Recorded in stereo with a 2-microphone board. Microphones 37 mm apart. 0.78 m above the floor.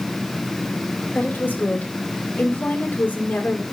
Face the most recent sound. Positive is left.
turn(degrees=55)  # may be behind; listen again after turning